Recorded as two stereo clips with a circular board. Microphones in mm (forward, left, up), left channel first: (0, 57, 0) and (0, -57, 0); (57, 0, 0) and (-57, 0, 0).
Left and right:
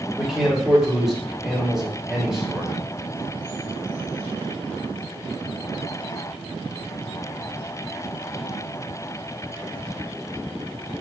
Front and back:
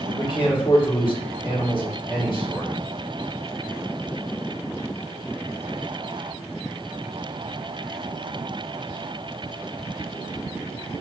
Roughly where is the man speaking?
Ahead.